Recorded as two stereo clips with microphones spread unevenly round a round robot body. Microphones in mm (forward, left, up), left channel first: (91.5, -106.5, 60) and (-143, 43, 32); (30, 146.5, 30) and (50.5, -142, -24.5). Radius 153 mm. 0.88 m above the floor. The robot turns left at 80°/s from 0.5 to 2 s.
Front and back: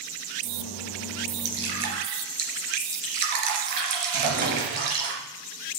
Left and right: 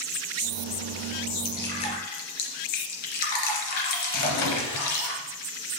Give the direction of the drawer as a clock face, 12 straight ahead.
9 o'clock.